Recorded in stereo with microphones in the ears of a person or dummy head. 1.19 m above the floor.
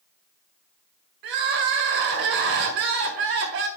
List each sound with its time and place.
1.2 s crying: 50° right (ahead or behind), 1.3 m